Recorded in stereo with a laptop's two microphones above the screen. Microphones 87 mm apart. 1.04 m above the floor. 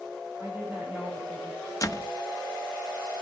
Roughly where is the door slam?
Left.